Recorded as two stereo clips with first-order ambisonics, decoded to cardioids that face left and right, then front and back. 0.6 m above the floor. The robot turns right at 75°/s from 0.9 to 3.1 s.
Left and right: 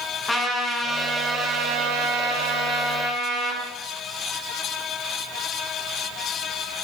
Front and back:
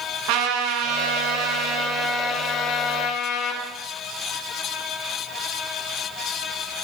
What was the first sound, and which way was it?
A trumpet, 175° left.